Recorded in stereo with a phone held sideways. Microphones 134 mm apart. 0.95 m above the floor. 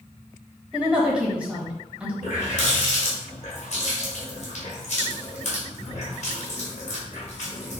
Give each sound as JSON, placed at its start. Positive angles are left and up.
{"t": 0.7, "sound": "a woman speaking", "side_deg": -10, "distance_m": 1.3}
{"t": 2.2, "sound": "a running tap", "side_deg": 55, "distance_m": 1.7}